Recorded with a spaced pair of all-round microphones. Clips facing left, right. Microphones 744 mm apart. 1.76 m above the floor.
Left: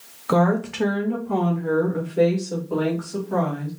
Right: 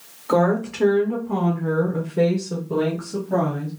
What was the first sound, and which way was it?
A woman speaking, 45° left (ahead or behind).